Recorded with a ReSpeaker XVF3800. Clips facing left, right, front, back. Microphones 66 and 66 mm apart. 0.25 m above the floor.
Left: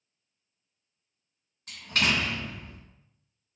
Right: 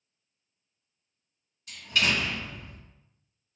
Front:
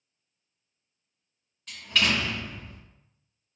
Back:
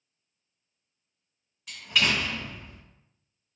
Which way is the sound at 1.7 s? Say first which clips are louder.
Even, even; 100° left.